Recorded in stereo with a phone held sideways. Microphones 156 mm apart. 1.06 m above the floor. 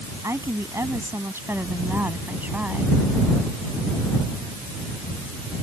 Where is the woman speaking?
20° right (ahead or behind); by 3.0 s 10° right (ahead or behind).